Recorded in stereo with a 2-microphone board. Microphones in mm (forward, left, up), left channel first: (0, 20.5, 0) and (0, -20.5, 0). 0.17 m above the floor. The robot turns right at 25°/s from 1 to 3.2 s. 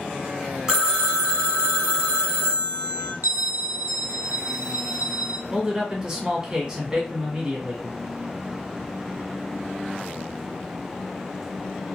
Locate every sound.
0.7 s a phone ringing: 150° right, 0.6 m; by 3.1 s 95° right, 0.6 m
3.2 s a bell: 65° right (ahead or behind), 0.5 m
5.5 s a man speaking: 15° right (ahead or behind), 1.3 m